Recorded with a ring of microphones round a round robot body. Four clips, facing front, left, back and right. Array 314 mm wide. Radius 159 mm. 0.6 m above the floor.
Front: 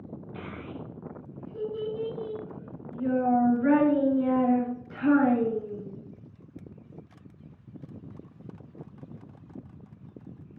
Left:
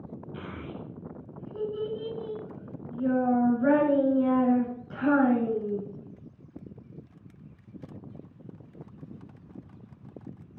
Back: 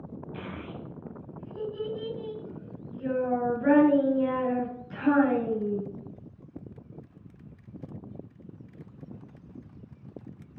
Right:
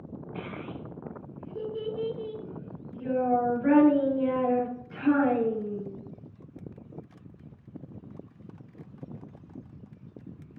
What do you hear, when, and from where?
0.3 s a child speaking: 80° left, 5.5 m